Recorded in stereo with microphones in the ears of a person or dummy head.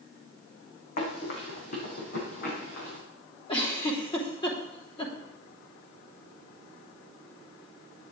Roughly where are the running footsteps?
Left.